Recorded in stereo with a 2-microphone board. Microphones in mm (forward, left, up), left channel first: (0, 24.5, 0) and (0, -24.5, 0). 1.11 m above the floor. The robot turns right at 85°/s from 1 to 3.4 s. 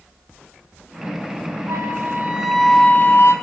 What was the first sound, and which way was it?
A flute, 75° right.